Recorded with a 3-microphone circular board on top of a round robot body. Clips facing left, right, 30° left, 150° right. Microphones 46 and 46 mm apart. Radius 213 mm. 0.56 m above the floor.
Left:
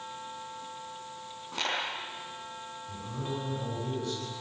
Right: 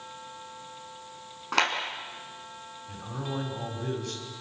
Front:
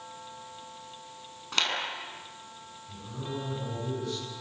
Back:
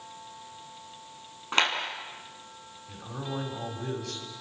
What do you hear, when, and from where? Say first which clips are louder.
1.5 s a clap: right 7 dB, back 4 dB; 90° right, 6.5 m
2.9 s a man speaking: right 2 dB, back 2 dB; 125° right, 6 m